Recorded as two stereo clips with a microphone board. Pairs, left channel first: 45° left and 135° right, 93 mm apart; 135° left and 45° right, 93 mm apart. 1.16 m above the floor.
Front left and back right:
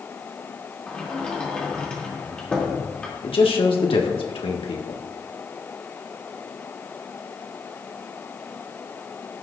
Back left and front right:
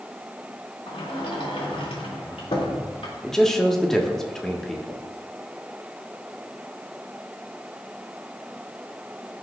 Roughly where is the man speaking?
Ahead left.